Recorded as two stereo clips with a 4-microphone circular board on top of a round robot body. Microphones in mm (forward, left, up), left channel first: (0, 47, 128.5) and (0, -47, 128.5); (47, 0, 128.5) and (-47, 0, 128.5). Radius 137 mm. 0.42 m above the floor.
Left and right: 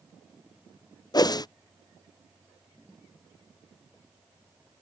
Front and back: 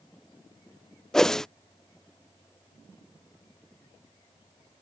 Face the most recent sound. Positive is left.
turn(degrees=85)